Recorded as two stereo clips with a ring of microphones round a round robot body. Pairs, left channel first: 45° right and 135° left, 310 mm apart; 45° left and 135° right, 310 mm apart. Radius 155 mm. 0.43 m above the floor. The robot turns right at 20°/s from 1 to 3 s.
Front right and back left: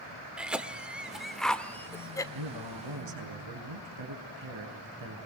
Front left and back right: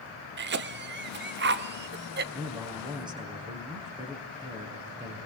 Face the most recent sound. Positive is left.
turn(degrees=150)